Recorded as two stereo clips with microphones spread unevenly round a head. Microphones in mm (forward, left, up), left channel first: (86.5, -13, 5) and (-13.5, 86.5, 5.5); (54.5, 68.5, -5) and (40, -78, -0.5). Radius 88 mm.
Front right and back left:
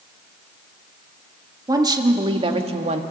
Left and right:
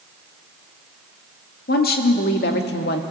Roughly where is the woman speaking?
Left.